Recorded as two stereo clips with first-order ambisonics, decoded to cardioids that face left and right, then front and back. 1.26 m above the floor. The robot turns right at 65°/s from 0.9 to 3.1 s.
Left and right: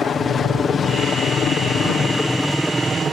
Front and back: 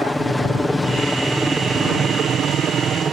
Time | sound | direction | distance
0.0 | a helicopter | 80° left | ?